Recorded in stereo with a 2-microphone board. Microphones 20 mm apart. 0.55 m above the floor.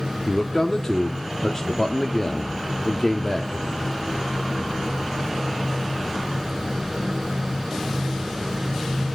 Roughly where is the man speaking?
Left.